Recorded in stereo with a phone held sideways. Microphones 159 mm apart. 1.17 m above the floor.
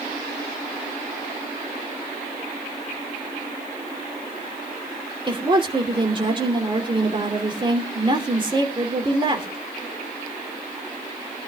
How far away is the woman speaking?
About 3 m.